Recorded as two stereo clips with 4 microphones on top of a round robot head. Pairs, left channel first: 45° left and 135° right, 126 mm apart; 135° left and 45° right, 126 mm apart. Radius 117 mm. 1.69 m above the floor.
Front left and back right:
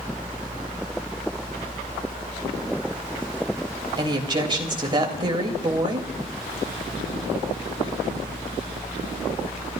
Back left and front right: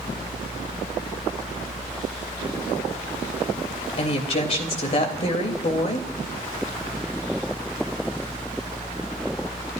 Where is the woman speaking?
170° left, 3.5 m.